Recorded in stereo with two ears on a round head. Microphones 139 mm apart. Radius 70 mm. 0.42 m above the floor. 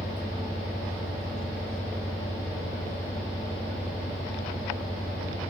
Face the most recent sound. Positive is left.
turn(degrees=5)  # may be behind; listen again after turning